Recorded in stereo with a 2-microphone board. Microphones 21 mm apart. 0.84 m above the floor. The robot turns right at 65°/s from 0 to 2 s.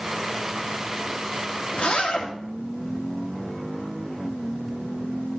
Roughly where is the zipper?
Left.